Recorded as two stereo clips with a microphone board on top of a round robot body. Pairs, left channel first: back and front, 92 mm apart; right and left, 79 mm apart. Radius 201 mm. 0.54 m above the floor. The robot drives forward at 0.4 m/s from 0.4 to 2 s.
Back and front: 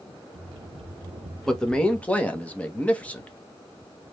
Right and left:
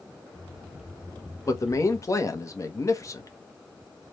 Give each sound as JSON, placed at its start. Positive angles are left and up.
{"t": 1.4, "sound": "a man speaking", "azimuth_deg": -100, "distance_m": 1.4}